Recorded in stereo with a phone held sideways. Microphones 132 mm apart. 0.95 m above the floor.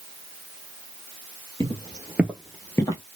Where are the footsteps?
40° right (ahead or behind), 1.2 m; by 3.0 s 30° left (ahead or behind), 1.1 m.